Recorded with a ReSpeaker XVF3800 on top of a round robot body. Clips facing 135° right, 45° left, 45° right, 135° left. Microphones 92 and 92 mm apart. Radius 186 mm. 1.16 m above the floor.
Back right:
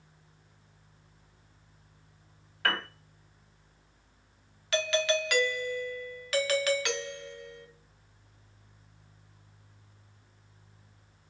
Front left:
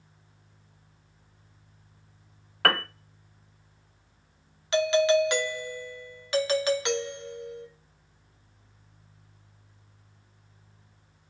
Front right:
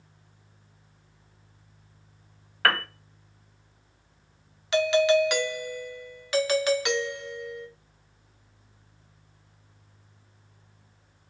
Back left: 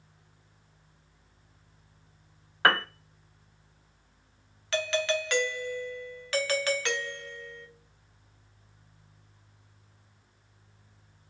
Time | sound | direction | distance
2.6 | a piano | 65° left | 0.5 m
4.7 | a doorbell | 10° left | 0.8 m